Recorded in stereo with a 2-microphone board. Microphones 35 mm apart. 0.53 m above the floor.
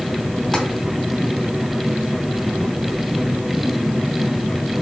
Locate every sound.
0.5 s tapping: 15° left (ahead or behind), 2.5 m